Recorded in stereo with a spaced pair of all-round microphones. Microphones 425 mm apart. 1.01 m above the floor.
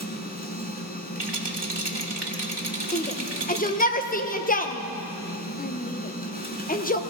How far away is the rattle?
About 1.4 m.